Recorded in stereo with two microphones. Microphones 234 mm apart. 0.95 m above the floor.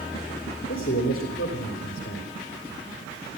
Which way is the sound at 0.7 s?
60° left (ahead or behind).